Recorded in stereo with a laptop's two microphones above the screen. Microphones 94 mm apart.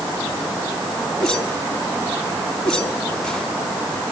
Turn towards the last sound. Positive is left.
turn(degrees=10)  # may be behind; listen again after turning